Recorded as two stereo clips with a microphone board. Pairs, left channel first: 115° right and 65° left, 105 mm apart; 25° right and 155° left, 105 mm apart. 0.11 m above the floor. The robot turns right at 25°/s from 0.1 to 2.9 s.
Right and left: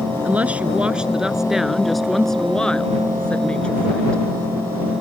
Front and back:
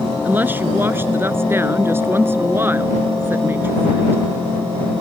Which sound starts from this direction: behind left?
A woman speaking, at 0.2 s.